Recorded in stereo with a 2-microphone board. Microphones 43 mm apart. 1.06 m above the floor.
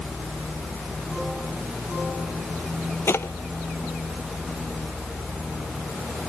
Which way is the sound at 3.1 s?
75° left (ahead or behind).